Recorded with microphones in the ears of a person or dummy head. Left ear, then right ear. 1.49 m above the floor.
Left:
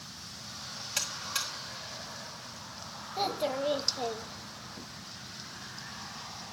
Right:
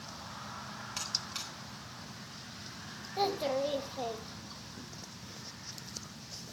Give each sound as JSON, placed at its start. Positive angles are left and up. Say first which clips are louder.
{"t": 1.0, "sound": "a buzzer", "louder": "left 4 dB", "side_deg": 15, "distance_m": 2.0}
{"t": 3.2, "sound": "a child speaking", "louder": "even", "side_deg": -5, "distance_m": 1.2}